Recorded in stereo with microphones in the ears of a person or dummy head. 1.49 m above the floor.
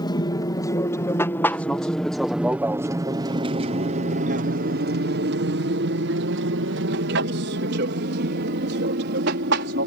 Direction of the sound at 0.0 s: 20° left (ahead or behind).